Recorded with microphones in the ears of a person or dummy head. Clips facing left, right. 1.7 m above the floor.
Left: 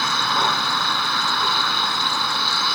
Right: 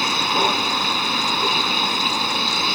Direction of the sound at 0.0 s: 15° right (ahead or behind).